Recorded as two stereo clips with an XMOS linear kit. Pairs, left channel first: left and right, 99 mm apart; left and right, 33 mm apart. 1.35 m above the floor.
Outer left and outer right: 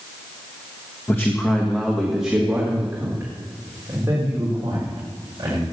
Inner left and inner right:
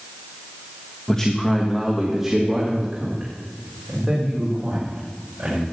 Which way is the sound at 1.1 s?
25° left (ahead or behind).